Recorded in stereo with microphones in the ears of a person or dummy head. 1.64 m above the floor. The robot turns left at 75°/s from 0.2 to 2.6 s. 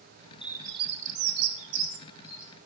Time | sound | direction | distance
0.4 | a bird | 5° right (ahead or behind) | 1.6 m